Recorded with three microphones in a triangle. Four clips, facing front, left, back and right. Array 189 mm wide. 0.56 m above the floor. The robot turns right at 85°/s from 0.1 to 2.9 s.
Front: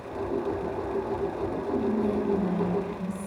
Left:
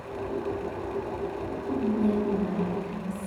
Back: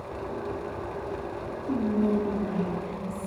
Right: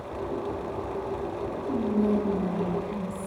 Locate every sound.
1.7 s whispering: 155° right, 1.1 m; by 3.3 s 50° right, 1.1 m